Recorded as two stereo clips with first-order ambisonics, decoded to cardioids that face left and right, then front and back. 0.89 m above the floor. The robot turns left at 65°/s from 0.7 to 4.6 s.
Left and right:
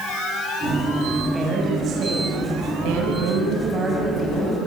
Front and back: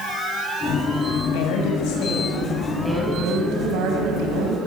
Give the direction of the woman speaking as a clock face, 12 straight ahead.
12 o'clock.